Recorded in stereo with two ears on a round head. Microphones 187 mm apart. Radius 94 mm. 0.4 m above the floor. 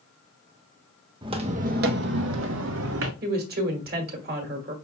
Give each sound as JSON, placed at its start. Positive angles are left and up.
{"t": 1.2, "sound": "footsteps", "side_deg": -25, "distance_m": 0.8}
{"t": 3.2, "sound": "a woman speaking", "side_deg": -50, "distance_m": 1.5}